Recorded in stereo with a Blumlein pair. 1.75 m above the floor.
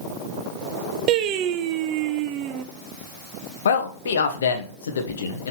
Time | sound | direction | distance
1.1 | singing | 40° right | 0.6 m
3.6 | a man speaking | 65° left | 1.1 m